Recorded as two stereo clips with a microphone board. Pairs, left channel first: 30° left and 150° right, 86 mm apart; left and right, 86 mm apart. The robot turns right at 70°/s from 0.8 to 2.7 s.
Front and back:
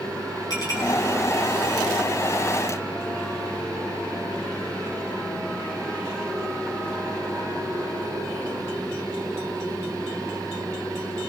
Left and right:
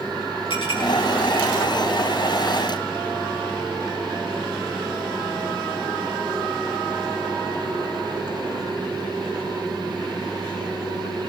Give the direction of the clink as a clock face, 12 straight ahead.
10 o'clock.